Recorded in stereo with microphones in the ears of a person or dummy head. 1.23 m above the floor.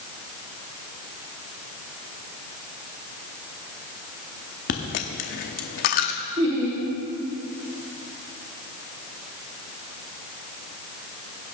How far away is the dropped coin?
About 0.8 m.